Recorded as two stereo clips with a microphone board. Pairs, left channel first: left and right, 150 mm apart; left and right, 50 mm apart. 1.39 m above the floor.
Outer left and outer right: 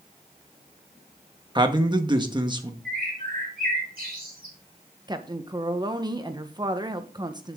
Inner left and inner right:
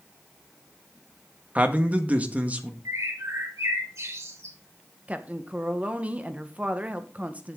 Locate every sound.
1.6 s a man speaking: 30° right (ahead or behind), 1.5 m
2.9 s a bird: 75° right (ahead or behind), 3 m
5.1 s a woman speaking: 30° right (ahead or behind), 1.1 m